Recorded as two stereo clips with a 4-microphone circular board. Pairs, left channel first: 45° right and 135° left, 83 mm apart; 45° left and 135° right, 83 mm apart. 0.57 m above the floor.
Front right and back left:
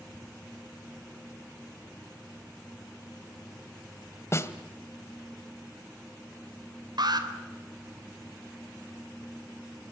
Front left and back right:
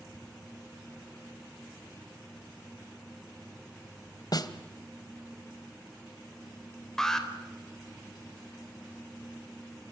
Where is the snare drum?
10° left, 1.8 m.